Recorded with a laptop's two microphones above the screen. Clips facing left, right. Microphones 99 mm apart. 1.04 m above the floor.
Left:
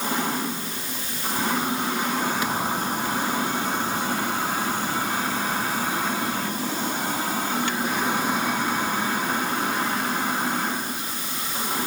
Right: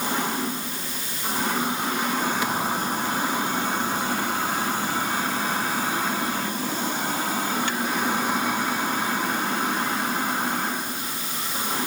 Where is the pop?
I don't hear a pop.